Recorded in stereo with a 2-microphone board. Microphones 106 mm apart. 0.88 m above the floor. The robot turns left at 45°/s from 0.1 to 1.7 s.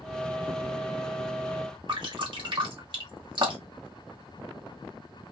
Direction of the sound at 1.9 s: 50° right (ahead or behind).